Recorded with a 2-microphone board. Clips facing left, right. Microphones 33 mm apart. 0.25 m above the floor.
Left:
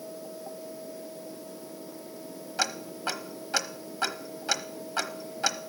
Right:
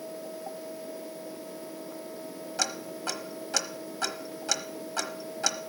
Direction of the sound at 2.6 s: 20° left (ahead or behind).